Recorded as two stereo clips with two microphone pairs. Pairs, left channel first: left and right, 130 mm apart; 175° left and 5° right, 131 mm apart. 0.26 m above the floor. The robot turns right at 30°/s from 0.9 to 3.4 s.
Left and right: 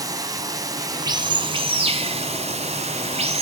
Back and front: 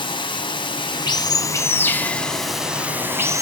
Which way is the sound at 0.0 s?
145° right.